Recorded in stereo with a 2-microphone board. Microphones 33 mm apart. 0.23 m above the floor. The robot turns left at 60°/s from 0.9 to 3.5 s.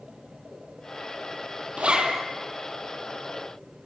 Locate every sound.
1.8 s a zipper: 40° right (ahead or behind), 1.9 m; by 2.2 s 15° right (ahead or behind), 1.9 m